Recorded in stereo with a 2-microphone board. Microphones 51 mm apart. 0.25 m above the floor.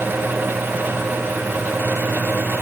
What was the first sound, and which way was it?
Only background noise.